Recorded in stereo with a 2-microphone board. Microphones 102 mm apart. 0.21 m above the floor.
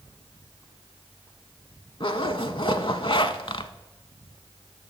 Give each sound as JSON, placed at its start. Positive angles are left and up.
{"t": 2.0, "sound": "a zipper", "side_deg": 60, "distance_m": 0.5}